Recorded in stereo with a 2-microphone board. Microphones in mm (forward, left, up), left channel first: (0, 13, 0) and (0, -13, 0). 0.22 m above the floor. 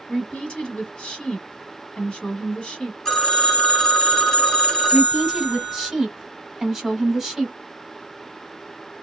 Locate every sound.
0.1 s a woman speaking: 40° left (ahead or behind), 1.5 m
3.0 s a phone ringing: 25° left (ahead or behind), 1.2 m
4.9 s a woman speaking: 5° right (ahead or behind), 1.4 m